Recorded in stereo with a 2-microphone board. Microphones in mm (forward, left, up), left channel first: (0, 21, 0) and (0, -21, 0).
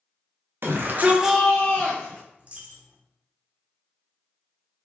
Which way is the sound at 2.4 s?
35° right (ahead or behind).